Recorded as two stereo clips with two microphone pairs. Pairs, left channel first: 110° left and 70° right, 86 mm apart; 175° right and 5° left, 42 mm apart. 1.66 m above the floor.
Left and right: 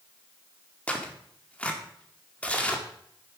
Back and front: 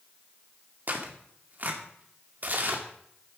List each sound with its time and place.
0.9 s tearing paper: 35° left, 1.9 m